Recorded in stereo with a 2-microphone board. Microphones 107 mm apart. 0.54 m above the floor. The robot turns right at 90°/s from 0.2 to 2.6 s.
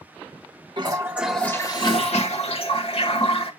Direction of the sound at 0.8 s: 50° right.